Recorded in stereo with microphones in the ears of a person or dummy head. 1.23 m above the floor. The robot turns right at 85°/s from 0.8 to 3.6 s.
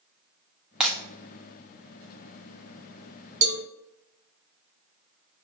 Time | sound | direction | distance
0.8 | breaking glass | 5° right (ahead or behind) | 1.0 m
3.4 | a cowbell | 40° right (ahead or behind) | 0.7 m